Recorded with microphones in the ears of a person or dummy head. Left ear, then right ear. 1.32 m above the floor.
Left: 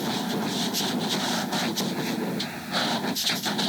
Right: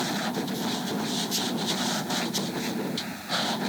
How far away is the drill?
No drill in this recording.